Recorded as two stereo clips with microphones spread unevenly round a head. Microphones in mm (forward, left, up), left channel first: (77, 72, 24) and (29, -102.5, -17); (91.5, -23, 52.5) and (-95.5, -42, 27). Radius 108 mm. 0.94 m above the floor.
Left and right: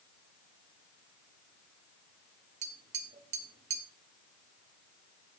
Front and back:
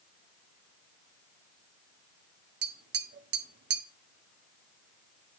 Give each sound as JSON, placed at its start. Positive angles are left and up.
{"t": 2.6, "sound": "tapping", "azimuth_deg": -155, "distance_m": 0.7}